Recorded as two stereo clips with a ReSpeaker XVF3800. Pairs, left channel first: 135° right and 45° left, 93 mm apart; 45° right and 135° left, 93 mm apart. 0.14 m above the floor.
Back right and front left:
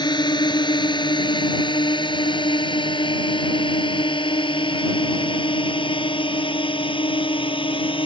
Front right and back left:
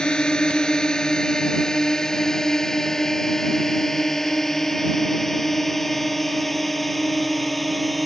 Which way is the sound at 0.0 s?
125° right.